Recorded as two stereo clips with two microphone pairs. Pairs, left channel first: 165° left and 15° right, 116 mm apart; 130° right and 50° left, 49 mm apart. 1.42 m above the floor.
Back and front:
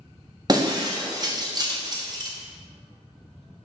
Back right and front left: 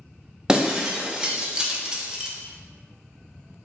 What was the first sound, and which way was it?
Breaking glass, 20° right.